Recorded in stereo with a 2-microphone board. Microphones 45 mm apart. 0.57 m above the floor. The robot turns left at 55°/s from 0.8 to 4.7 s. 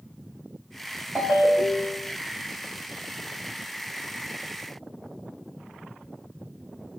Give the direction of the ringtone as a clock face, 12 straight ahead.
5 o'clock.